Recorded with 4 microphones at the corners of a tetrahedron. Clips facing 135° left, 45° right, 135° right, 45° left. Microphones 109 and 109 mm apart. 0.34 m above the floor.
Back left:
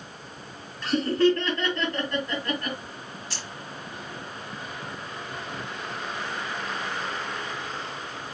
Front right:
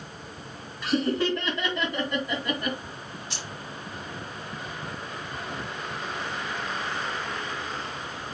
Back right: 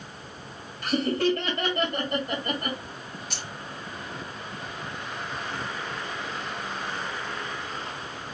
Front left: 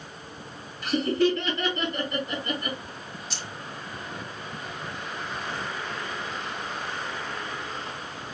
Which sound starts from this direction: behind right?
Laughter, at 0.8 s.